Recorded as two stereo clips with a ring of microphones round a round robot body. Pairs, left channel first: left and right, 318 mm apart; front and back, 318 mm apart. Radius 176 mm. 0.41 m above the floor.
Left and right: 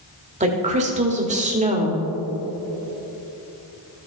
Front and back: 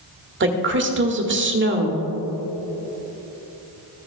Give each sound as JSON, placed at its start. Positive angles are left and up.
{"t": 0.4, "sound": "a woman speaking", "azimuth_deg": -150, "distance_m": 1.2}